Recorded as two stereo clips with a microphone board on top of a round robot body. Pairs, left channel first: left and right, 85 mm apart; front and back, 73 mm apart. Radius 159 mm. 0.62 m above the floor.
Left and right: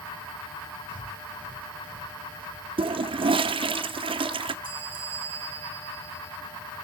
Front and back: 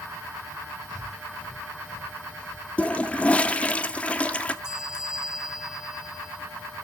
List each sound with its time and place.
0.9 s breathing: 80° right, 5.5 m
2.8 s a toilet flushing: 75° right, 0.6 m
4.6 s a bell: 100° right, 2 m